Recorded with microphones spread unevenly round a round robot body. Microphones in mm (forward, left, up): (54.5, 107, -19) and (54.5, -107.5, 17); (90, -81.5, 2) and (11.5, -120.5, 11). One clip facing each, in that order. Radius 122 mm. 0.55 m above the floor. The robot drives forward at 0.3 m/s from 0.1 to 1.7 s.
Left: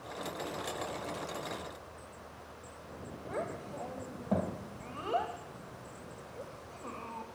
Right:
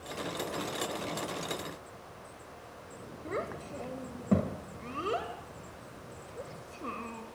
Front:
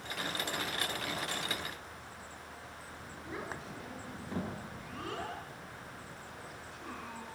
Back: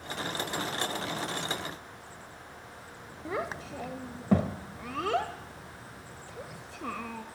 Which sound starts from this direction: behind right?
A child speaking, at 3.2 s.